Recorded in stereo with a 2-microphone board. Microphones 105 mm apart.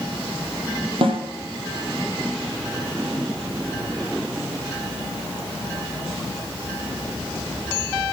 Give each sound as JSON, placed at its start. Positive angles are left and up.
{"t": 1.0, "sound": "a snare drum", "side_deg": -55, "distance_m": 4.0}